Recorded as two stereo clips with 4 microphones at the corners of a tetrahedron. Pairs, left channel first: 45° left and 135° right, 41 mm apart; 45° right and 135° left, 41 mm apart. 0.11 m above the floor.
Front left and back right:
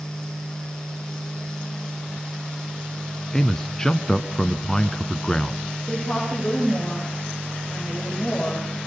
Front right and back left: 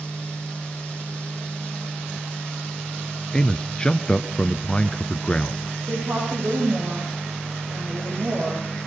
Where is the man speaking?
10° right, 1.2 m.